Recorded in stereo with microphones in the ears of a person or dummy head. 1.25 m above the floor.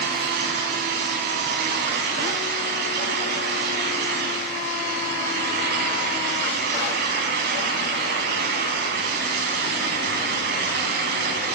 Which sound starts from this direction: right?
A fan, at 0.0 s.